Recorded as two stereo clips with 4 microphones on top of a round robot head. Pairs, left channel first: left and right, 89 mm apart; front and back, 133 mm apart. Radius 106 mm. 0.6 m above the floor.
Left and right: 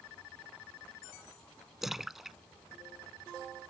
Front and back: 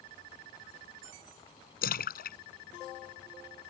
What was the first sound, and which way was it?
A splash, 5° right.